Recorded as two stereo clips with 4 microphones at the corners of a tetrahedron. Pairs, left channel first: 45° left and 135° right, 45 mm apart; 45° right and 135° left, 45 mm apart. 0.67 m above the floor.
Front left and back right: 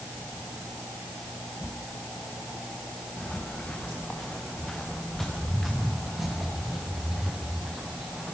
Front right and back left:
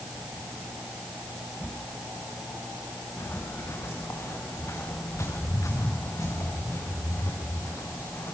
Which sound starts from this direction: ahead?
Footsteps, at 3.2 s.